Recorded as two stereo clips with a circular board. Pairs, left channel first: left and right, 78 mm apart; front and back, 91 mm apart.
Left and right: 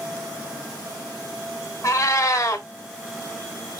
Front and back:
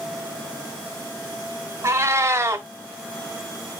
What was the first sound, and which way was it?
A cat meowing, 125° left.